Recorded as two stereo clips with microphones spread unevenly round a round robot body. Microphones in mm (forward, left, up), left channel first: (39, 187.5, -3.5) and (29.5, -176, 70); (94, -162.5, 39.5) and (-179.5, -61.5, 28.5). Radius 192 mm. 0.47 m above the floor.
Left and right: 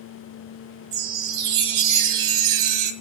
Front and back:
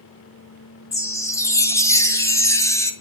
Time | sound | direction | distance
0.9 | a chime | 100° right | 2.0 m